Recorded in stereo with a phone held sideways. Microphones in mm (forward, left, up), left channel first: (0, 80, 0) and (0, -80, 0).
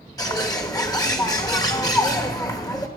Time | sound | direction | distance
0.2 | a bird | 25° left (ahead or behind) | 1.2 m